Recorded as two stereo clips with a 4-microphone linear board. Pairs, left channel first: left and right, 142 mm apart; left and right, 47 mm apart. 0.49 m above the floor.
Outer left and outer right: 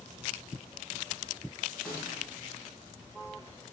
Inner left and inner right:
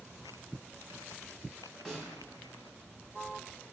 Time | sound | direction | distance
1.9 | a snare drum | 10° left (ahead or behind) | 1.5 m